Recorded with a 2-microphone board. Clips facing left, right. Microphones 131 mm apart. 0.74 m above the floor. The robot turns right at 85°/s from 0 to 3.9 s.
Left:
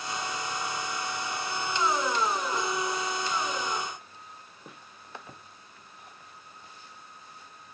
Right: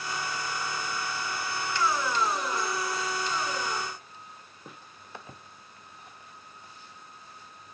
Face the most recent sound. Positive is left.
No sound to turn to.